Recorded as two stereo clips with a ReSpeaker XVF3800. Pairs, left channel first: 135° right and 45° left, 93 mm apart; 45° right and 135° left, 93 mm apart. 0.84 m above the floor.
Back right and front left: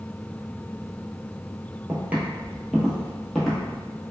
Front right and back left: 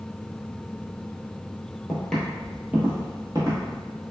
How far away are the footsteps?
About 0.9 m.